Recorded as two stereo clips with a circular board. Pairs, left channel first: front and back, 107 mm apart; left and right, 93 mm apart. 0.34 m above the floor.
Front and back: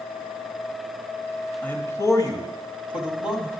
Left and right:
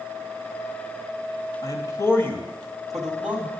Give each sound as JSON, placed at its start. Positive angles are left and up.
{"t": 1.6, "sound": "a man speaking", "azimuth_deg": 70, "distance_m": 1.6}